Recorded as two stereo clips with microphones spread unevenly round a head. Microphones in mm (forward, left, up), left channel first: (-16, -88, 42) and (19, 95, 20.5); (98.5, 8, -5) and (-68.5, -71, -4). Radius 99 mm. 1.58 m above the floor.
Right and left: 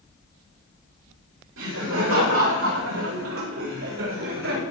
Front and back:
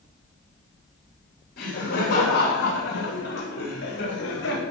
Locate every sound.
1.6 s laughter: 75° left, 8.5 m; by 4.6 s 65° left, 7 m